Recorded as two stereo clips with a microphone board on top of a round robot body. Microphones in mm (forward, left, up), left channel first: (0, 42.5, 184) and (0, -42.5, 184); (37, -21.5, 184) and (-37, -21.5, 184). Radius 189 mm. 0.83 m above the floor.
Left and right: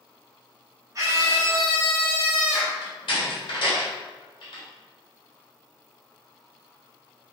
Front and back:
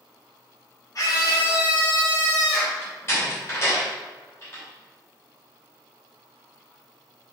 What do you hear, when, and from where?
0.9 s a scream: 40° right, 0.9 m; by 2.7 s straight ahead, 1.5 m
2.8 s a door slam: 60° left, 1.0 m